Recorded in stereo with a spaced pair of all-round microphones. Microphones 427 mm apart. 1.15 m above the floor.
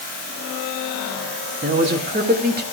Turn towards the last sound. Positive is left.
turn(degrees=-20)  # may be behind; listen again after turning